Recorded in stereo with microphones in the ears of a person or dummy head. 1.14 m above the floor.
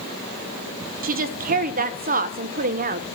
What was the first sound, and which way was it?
A woman speaking, 40° right (ahead or behind).